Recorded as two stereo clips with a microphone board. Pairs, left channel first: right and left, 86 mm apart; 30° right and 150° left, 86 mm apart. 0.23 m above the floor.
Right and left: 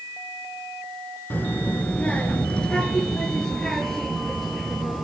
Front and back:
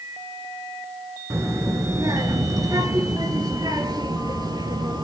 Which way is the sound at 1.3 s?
155° right.